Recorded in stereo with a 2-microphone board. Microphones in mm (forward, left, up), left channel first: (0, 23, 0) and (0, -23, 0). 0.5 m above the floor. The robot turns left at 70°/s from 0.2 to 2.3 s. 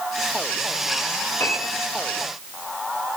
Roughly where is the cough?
No cough in this recording.